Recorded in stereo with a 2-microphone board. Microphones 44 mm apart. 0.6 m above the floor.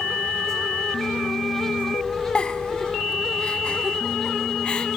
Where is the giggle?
25° left (ahead or behind), 0.9 m.